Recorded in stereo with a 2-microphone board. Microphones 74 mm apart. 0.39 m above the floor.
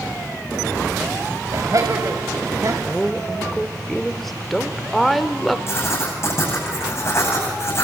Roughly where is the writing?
Left.